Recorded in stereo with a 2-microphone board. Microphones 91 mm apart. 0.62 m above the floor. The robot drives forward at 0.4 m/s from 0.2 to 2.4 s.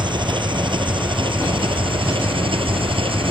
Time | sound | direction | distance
0.0 | an engine running | 60° right (ahead or behind) | ?